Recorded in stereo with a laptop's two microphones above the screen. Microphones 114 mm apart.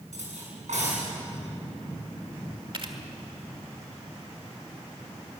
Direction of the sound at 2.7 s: 45° right (ahead or behind).